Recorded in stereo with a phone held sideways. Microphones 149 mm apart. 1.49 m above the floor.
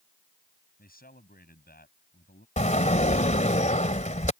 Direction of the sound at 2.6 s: 55° left (ahead or behind).